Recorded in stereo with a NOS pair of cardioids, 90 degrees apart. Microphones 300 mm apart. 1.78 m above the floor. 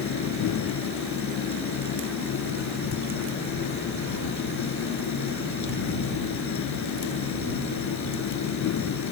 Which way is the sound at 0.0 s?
65° left.